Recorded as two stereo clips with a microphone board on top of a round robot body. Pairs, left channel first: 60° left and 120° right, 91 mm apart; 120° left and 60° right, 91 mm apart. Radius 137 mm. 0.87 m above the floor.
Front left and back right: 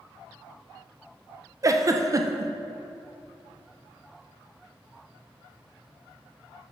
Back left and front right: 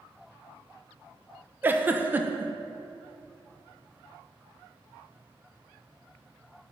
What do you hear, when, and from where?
1.6 s a giggle: 115° right, 0.6 m